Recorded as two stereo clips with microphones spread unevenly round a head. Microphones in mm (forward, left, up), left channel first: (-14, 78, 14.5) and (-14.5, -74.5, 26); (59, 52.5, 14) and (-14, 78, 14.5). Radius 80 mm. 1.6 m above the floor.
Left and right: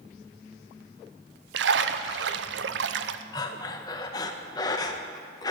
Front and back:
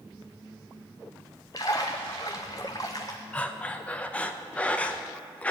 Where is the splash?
85° right, 0.5 m.